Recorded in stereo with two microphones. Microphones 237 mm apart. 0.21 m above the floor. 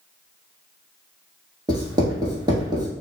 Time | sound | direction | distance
1.7 | writing | 20° right (ahead or behind) | 0.9 m